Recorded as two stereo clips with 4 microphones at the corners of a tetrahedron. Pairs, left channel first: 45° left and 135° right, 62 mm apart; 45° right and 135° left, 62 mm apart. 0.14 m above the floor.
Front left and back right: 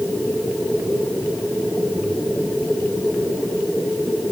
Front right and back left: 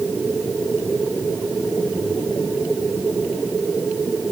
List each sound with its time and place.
Only background noise.